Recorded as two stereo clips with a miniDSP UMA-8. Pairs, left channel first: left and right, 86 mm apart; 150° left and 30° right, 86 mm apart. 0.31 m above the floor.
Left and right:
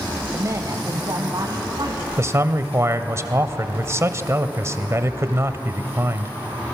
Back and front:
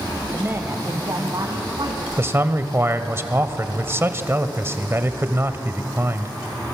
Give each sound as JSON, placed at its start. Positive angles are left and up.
{"t": 0.3, "sound": "a woman speaking", "azimuth_deg": -85, "distance_m": 1.1}
{"t": 2.2, "sound": "a man speaking", "azimuth_deg": -70, "distance_m": 1.1}